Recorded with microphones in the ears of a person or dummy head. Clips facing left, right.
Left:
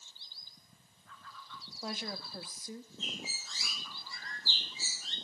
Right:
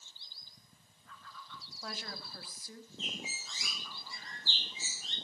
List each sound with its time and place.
1.7 s a woman speaking: 20° left (ahead or behind), 2 m
3.0 s a bird: 20° right (ahead or behind), 4.5 m